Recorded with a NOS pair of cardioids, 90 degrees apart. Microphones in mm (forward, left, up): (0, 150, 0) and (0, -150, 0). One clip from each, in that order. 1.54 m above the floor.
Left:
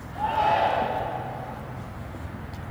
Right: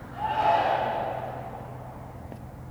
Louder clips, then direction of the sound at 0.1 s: Left 1 dB; 15° left.